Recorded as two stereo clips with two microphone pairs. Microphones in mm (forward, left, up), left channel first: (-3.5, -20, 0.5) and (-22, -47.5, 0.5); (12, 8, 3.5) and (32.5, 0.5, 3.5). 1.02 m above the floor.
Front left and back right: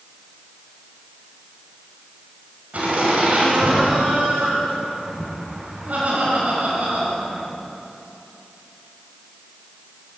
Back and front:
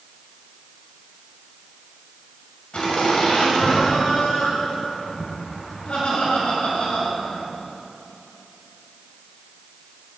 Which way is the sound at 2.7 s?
165° right.